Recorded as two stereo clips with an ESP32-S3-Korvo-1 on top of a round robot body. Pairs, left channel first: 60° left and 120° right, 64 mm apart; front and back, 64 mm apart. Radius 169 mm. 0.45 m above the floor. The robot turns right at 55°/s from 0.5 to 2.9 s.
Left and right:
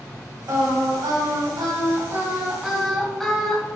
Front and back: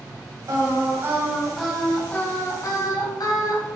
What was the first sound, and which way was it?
Singing, 155° right.